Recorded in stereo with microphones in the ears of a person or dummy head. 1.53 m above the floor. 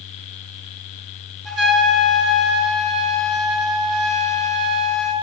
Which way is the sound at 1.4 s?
Centre (ahead or behind).